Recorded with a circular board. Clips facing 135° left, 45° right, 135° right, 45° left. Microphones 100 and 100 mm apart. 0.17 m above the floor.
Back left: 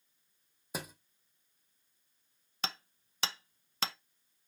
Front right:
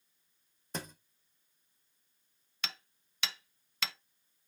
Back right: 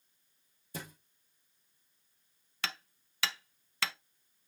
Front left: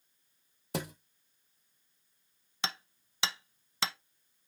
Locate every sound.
0.7 s a thud: 55° left, 1.0 m
2.6 s hammering: 105° left, 0.5 m